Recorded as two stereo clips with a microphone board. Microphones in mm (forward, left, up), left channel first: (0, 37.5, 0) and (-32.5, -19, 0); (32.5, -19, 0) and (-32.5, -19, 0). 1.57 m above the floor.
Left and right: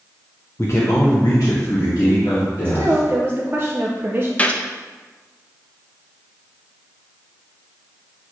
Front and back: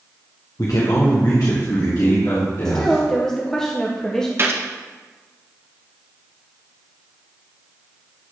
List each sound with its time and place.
0.6 s a man speaking: 20° left, 0.8 m; by 3.6 s 30° left, 3.5 m
2.6 s a woman speaking: 80° right, 0.7 m
4.4 s a gunshot: 130° left, 0.7 m